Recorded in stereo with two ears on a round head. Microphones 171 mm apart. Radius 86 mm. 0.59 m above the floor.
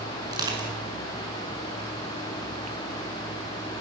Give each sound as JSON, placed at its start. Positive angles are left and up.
{"t": 0.3, "sound": "crushing", "side_deg": -20, "distance_m": 5.5}